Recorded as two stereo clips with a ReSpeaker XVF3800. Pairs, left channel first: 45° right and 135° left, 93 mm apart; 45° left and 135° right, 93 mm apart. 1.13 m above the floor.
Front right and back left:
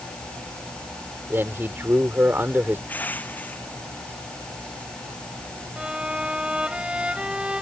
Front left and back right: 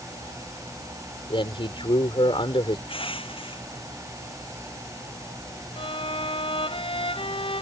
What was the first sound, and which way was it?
A man speaking, 70° left.